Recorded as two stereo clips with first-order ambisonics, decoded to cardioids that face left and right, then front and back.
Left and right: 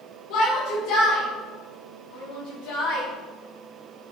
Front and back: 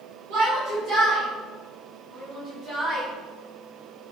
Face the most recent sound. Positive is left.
turn(degrees=100)